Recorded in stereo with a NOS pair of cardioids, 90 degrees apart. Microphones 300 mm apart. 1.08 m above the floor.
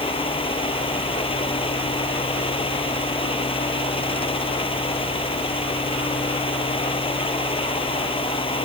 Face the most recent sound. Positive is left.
turn(degrees=20)